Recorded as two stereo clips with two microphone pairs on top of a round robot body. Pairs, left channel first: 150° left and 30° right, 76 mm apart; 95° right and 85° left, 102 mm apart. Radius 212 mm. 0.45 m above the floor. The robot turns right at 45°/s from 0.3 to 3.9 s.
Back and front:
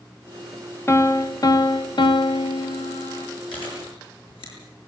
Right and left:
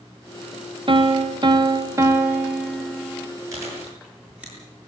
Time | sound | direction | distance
0.9 | a piano | 90° left | 2 m
3.5 | chewing | 145° left | 8.5 m